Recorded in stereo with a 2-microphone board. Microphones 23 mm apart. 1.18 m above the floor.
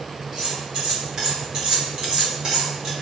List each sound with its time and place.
0.3 s cutlery clinking: 35° right (ahead or behind), 2 m